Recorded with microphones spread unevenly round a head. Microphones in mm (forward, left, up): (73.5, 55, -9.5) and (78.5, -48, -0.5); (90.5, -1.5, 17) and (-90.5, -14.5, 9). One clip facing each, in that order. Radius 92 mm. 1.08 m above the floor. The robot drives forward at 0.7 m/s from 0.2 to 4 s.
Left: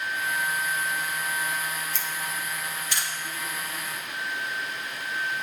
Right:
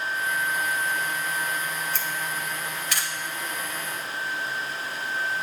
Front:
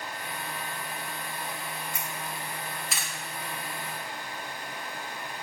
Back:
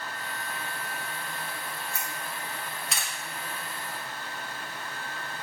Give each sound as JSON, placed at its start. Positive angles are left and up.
{"t": 1.9, "sound": "a camera shutter", "azimuth_deg": -70, "distance_m": 2.5}